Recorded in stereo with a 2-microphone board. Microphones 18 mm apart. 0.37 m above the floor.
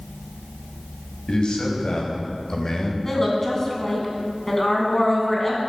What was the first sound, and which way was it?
A man speaking, 60° left (ahead or behind).